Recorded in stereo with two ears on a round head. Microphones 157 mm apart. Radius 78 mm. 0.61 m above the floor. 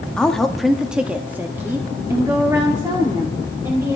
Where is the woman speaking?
5° left (ahead or behind), 1.0 m; by 4.0 s 20° right (ahead or behind), 2.5 m.